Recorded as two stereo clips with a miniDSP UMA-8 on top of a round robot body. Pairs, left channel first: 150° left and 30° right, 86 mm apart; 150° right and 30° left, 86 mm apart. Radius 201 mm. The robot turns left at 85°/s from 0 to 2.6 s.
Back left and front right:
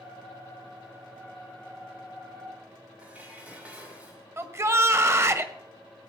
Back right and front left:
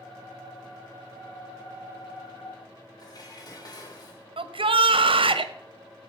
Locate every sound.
3.0 s dishes clattering: 105° right, 2.5 m
4.4 s a shout: 30° left, 1.3 m